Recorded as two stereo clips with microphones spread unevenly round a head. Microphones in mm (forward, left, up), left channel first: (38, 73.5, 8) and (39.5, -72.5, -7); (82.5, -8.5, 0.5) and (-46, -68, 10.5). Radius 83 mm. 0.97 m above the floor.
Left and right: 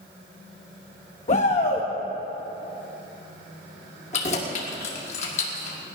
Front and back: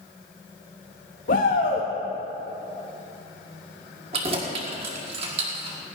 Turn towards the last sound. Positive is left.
turn(degrees=145)